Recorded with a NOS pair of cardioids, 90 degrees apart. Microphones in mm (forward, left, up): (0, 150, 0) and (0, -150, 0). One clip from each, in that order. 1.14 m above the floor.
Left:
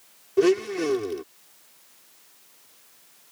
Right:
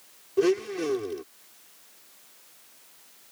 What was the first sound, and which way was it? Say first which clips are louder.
A blender: left 3 dB; 30° left.